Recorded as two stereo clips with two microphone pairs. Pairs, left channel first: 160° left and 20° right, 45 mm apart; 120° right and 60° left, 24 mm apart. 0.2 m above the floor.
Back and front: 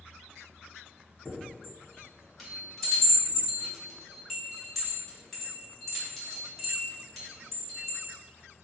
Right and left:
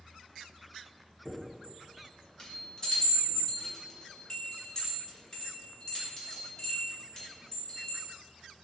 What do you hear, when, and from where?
1.2 s a chime: 115° right, 1.2 m